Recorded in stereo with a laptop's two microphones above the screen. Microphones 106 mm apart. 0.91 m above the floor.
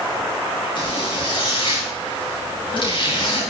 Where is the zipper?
50° left (ahead or behind), 6.5 m.